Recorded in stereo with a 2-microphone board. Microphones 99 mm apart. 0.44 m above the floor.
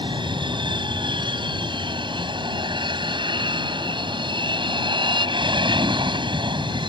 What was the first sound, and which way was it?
An aircraft, 55° right (ahead or behind).